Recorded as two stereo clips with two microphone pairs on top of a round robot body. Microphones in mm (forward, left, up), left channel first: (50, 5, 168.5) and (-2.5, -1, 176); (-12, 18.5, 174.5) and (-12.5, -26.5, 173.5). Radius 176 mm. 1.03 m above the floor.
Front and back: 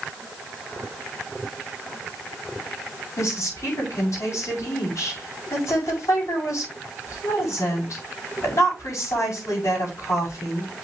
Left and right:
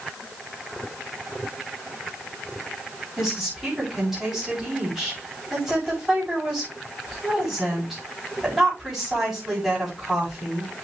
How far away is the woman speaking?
About 7 m.